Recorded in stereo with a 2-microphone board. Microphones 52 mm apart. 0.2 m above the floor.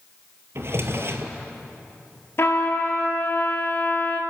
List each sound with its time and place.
0.6 s a drawer: 55° right (ahead or behind), 1.4 m
2.4 s a trumpet: 55° left (ahead or behind), 2 m